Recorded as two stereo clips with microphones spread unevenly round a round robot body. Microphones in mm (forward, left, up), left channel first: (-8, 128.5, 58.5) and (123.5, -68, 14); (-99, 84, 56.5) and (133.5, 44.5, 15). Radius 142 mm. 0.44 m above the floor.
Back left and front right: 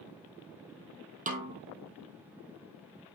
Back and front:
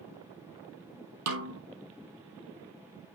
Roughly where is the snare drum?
Ahead.